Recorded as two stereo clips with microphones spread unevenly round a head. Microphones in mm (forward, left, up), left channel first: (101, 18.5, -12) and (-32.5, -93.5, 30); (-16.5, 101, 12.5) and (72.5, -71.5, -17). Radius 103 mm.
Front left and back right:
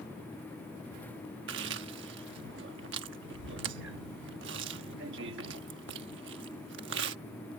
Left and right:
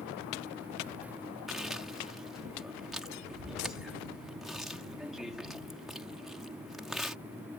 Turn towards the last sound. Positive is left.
turn(degrees=-155)